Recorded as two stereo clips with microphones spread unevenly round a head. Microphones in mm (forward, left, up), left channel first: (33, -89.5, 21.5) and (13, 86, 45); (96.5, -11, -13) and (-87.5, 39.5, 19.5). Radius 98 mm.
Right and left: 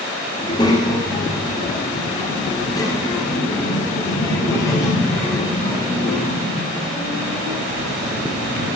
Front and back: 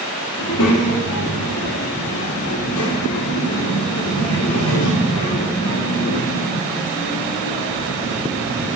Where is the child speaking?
15° right, 2 m; by 8.7 s 5° right, 7 m.